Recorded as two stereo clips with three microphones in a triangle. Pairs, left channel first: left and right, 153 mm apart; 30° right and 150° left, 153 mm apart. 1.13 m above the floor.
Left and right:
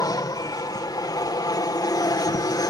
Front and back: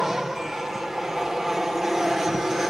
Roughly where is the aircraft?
Ahead left.